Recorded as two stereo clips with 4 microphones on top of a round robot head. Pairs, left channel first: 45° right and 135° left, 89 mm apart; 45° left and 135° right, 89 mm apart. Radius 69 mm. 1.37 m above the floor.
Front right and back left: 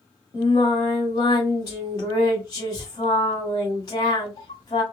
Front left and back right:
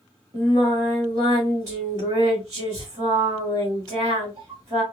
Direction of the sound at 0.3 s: 90° right.